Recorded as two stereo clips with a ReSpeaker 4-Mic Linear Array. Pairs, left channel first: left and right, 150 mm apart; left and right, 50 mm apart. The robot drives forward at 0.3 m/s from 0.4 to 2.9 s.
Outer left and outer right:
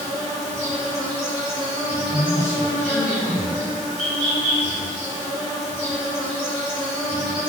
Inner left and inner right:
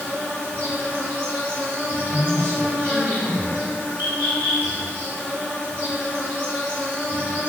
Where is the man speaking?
20° left (ahead or behind), 1.9 m.